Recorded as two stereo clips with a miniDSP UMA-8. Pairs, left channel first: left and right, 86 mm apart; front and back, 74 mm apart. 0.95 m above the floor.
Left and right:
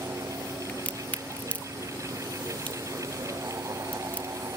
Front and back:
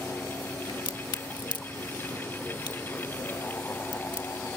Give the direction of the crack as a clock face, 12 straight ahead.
11 o'clock.